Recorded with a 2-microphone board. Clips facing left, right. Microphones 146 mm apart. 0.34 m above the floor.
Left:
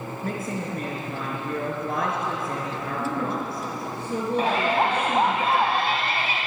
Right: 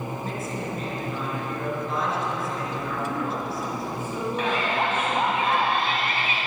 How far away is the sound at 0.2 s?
About 5 m.